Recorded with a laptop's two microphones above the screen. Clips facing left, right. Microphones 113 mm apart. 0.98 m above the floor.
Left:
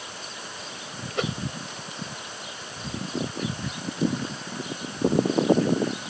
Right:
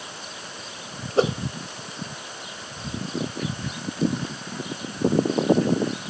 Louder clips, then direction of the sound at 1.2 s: Right 8 dB; 35° right (ahead or behind).